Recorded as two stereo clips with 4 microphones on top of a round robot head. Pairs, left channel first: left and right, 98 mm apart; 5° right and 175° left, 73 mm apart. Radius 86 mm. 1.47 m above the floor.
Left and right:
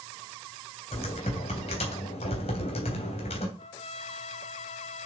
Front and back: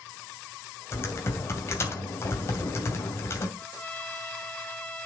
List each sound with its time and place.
0.9 s typing on a keyboard: 50° left, 2.5 m
3.6 s a trumpet: 65° left, 2.0 m